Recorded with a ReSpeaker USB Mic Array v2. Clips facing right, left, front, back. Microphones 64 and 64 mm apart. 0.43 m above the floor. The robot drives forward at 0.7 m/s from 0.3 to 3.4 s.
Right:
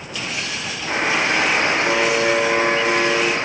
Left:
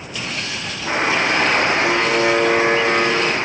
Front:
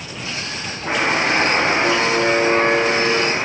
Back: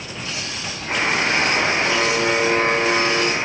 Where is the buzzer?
35° left, 4.5 m; by 3.4 s 50° left, 3 m.